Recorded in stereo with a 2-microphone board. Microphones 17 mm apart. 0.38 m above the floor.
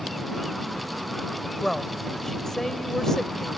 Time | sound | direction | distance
1.6 | a woman speaking | 30° left (ahead or behind) | ?